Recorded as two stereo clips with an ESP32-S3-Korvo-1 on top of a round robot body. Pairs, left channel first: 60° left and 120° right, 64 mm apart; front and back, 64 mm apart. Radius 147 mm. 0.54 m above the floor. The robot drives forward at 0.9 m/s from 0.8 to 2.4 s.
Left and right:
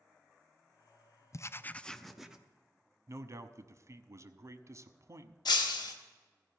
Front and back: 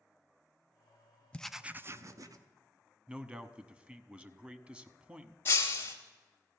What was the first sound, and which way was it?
Writing, 65° left.